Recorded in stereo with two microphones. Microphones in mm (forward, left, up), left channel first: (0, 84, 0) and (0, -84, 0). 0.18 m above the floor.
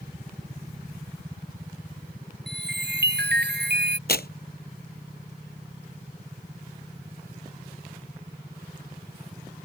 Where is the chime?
80° right.